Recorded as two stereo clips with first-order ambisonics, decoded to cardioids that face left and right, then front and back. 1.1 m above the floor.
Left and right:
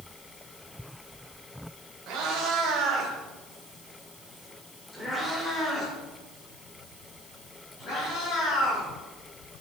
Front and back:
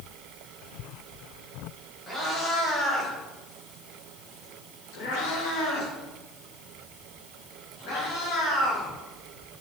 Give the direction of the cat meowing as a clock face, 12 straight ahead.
3 o'clock.